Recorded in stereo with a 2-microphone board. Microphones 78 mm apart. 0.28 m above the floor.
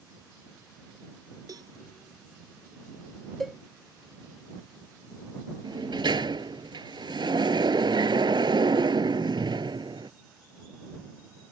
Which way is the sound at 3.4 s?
Centre (ahead or behind).